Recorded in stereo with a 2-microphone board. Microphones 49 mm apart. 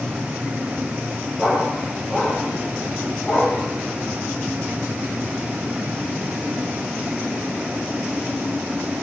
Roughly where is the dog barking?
Centre.